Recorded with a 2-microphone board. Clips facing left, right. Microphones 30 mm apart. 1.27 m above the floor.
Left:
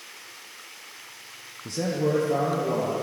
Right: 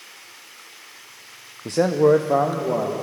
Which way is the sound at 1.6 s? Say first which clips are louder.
Right 9 dB; 60° right (ahead or behind).